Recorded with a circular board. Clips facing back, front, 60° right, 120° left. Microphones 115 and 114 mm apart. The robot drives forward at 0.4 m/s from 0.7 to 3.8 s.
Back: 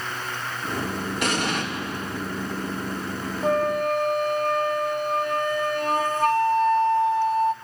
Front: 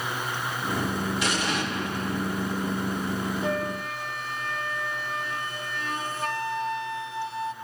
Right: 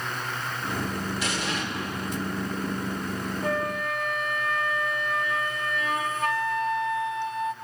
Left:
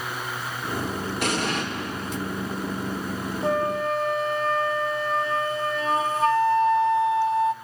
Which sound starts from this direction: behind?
A flute, at 3.4 s.